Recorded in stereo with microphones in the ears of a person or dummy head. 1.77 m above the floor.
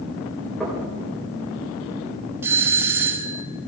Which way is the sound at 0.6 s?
5° right (ahead or behind).